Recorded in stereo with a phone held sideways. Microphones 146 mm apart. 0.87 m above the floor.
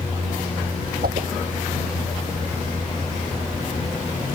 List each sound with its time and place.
1.0 s a whoosh: 80° right